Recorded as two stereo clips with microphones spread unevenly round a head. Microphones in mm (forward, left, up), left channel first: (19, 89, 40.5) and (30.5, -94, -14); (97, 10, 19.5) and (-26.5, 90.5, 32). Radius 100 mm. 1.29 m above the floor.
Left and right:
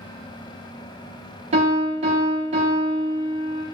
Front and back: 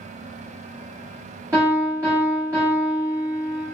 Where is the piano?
150° right, 0.9 m.